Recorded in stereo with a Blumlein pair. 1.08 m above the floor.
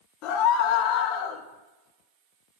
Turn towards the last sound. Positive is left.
turn(degrees=35)